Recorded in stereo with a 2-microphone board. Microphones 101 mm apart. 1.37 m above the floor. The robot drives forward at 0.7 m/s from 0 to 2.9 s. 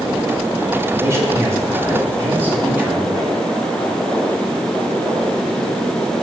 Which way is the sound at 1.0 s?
30° right (ahead or behind).